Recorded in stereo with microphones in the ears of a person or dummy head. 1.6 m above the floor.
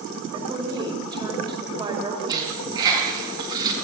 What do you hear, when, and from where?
0.3 s a woman speaking: 25° right (ahead or behind), 4 m
2.3 s a dropped coin: 20° right (ahead or behind), 6.5 m